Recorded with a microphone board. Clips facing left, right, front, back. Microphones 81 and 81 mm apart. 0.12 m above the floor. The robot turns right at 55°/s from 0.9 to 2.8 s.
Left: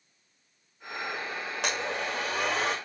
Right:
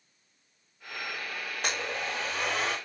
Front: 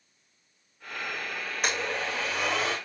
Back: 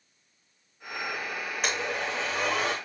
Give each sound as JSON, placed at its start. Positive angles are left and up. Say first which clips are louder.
{"t": 1.6, "sound": "a blender", "louder": "left 2 dB, front 1 dB", "azimuth_deg": 85, "distance_m": 3.5}